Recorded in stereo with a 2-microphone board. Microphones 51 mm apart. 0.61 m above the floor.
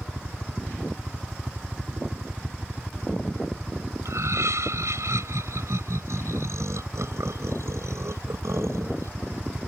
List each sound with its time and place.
0.0 s a helicopter: 10° right (ahead or behind)
4.0 s laughter: 75° right (ahead or behind)